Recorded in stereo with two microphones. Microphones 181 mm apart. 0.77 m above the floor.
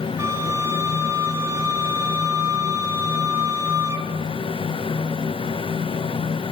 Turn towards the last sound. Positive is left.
turn(degrees=-15)  # may be behind; listen again after turning